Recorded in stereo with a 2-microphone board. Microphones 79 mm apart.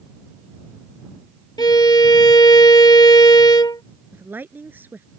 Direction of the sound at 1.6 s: 60° left (ahead or behind).